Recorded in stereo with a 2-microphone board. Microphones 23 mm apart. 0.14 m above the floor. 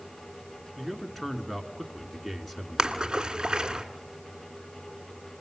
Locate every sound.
0.8 s a man speaking: 5° left (ahead or behind), 1.6 m
2.8 s a splash: 30° right (ahead or behind), 1.5 m